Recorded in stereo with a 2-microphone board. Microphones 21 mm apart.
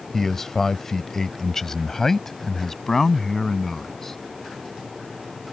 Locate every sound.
0.1 s a man speaking: 15° left (ahead or behind); by 4.2 s 20° left (ahead or behind)